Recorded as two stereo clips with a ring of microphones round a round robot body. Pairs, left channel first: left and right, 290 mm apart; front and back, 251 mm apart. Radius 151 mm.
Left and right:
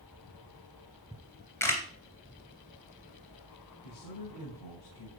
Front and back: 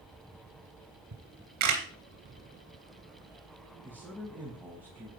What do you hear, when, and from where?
1.1 s a camera shutter: 170° left, 2.5 m
3.8 s a man speaking: 95° left, 3.5 m